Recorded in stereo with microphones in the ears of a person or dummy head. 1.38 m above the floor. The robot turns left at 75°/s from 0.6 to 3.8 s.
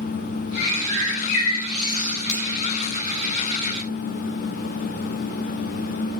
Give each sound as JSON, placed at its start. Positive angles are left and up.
{"t": 0.6, "sound": "a bird", "azimuth_deg": 120, "distance_m": 4.0}
{"t": 2.3, "sound": "a finger snap", "side_deg": 40, "distance_m": 4.5}